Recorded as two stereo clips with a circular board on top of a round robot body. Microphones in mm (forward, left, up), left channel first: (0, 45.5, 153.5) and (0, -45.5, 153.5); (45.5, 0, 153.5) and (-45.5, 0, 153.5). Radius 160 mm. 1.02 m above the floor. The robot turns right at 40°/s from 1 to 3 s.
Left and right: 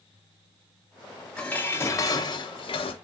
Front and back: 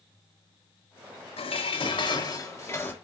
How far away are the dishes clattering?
About 0.9 m.